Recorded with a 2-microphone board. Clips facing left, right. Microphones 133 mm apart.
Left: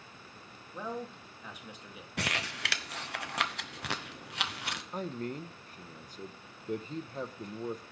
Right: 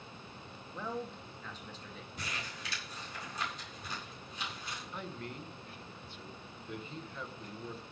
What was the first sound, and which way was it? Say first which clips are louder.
A man speaking: left 1 dB; 10° left (ahead or behind).